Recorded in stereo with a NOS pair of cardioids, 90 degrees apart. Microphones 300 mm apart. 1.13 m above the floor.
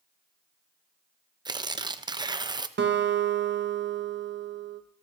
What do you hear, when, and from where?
1.4 s tearing paper: 15° right, 0.6 m
2.8 s a guitar: 40° right, 1.3 m